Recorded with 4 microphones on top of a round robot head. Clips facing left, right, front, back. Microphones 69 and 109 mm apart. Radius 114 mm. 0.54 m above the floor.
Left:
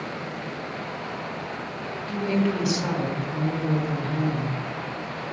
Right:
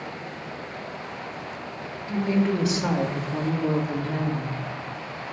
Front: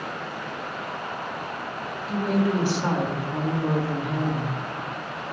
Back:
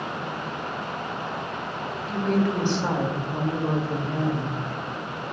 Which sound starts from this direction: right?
A woman speaking, at 2.1 s.